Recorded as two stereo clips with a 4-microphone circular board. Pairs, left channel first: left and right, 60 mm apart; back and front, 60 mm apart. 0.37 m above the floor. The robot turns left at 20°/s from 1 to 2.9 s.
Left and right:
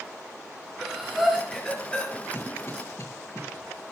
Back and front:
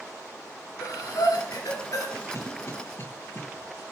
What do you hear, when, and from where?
0.8 s breathing: straight behind, 5.5 m; by 2.1 s 155° left, 5.5 m
2.3 s a cough: 140° left, 6.5 m; by 3.4 s 130° left, 6.5 m